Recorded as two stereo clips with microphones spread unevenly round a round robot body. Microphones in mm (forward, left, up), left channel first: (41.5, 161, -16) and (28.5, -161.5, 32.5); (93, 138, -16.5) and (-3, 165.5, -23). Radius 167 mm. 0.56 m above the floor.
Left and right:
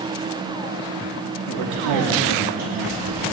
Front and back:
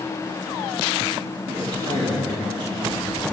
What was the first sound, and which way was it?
A man speaking, 90° right.